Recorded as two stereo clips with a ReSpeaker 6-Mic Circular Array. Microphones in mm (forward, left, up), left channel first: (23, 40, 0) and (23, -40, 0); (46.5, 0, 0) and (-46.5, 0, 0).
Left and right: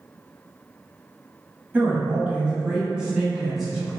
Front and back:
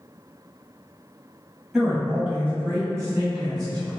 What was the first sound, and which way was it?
A man speaking, 100° right.